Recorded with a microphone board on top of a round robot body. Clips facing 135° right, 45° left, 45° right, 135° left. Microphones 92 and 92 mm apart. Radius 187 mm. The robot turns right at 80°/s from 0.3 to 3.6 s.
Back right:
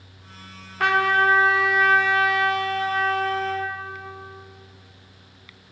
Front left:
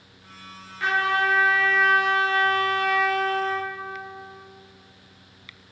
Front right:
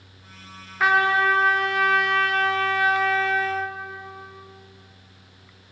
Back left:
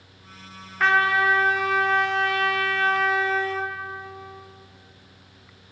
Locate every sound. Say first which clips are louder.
0.8 s a trumpet: back right 4 dB, front right 1 dB; 130° right, 1.0 m; by 3.7 s 95° left, 1.0 m